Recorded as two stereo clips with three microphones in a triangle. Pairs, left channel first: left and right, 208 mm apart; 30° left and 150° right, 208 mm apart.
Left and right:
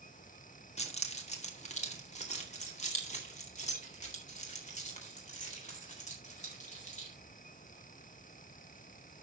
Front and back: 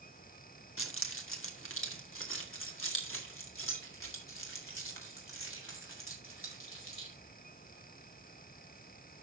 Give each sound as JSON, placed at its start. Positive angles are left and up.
{"t": 0.8, "sound": "keys jangling", "azimuth_deg": 35, "distance_m": 1.5}